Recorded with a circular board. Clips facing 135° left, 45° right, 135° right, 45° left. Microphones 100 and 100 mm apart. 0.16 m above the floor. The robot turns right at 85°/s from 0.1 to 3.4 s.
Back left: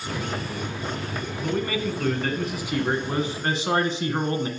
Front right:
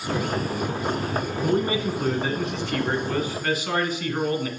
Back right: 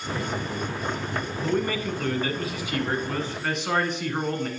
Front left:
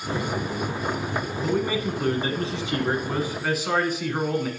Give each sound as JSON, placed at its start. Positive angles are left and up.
{"t": 1.4, "sound": "a man speaking", "azimuth_deg": -40, "distance_m": 1.2}